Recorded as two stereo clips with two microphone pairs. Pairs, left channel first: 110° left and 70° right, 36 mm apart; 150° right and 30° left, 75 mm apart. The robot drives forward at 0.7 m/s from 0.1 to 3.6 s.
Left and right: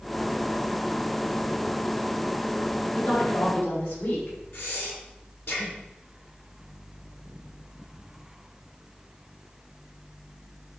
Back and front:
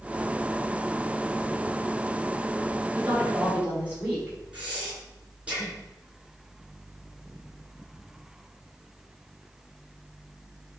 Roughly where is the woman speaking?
Left.